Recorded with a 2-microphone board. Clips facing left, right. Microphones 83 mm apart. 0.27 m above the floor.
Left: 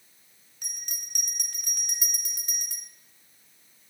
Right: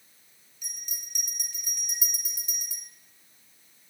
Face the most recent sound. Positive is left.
turn(degrees=65)  # may be behind; listen again after turning